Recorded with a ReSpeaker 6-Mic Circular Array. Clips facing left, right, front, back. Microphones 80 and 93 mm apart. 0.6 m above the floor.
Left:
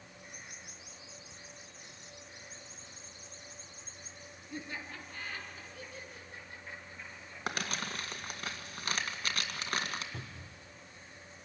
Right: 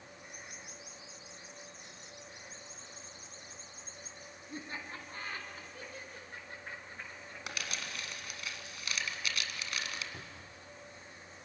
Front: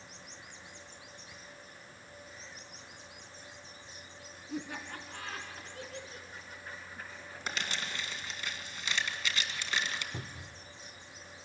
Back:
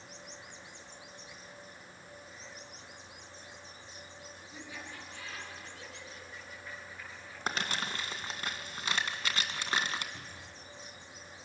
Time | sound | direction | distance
4.5 | laughter | 30° right | 5 m
7.5 | crumpling | 135° left | 1.9 m
10.1 | a cupboard door | 10° left | 0.9 m